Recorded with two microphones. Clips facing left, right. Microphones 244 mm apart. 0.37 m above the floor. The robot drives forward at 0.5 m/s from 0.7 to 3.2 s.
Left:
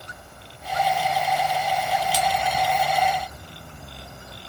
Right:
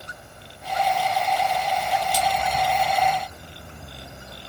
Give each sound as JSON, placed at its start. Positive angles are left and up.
{"t": 2.1, "sound": "a splash", "side_deg": 85, "distance_m": 1.1}